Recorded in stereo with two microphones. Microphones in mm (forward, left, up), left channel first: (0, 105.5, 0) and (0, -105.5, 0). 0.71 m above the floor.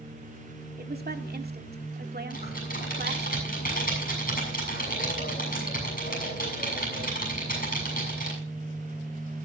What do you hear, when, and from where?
0.8 s a woman speaking: 50° right (ahead or behind), 1.8 m
2.3 s typing on a keyboard: 45° left (ahead or behind), 7 m